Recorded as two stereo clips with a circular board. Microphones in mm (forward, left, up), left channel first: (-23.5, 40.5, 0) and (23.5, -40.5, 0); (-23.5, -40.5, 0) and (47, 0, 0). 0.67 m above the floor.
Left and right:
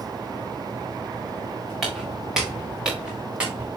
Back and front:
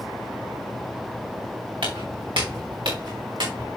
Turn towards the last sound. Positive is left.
turn(degrees=15)